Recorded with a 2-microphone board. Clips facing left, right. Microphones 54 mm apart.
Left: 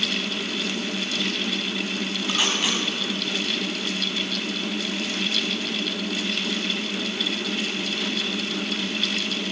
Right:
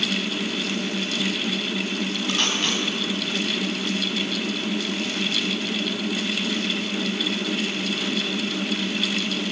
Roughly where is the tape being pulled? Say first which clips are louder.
Left 1 dB; centre.